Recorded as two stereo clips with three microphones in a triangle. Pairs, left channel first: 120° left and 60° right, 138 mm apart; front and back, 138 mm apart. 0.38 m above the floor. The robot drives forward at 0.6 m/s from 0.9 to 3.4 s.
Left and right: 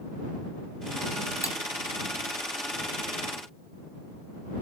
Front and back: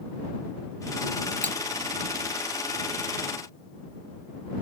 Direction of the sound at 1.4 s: 175° right.